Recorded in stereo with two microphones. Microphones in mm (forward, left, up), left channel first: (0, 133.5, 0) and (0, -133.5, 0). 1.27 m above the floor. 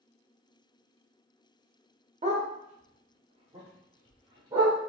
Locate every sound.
2.2 s a dog barking: 25° right (ahead or behind), 0.8 m; by 4.8 s 15° right (ahead or behind), 1.7 m